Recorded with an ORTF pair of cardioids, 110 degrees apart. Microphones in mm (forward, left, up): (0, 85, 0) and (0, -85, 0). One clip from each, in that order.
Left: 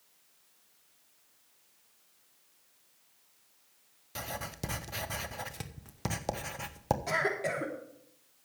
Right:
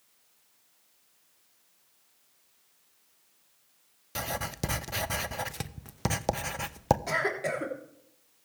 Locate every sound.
4.2 s writing: 25° right, 0.6 m
7.1 s a cough: 10° right, 3 m